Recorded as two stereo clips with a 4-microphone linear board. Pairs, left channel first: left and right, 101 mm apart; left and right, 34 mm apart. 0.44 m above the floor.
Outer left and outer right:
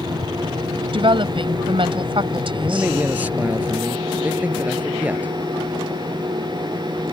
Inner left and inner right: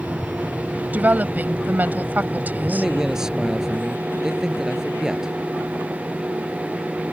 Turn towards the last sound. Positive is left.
turn(degrees=-15)  # may be behind; listen again after turning